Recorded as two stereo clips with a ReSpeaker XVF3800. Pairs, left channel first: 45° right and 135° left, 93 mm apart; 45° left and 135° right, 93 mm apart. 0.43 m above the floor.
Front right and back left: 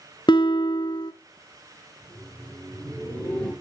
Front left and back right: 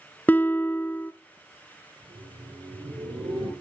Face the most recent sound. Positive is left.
turn(degrees=-120)